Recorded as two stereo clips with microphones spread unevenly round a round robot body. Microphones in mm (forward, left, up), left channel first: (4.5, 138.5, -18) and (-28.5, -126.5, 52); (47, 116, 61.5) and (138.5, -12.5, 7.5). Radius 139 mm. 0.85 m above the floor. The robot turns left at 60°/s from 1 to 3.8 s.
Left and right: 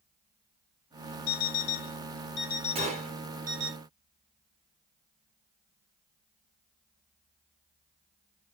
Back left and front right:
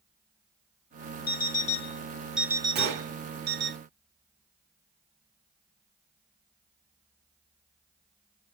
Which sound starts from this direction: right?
A gunshot, at 2.8 s.